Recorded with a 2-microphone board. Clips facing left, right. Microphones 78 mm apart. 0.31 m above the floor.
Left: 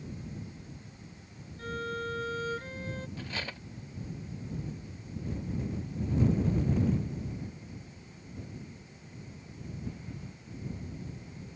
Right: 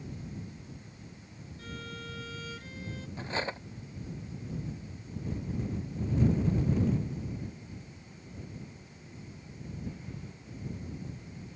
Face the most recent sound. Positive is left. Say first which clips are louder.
# right 5 dB
turn(degrees=-30)  # may be behind; listen again after turning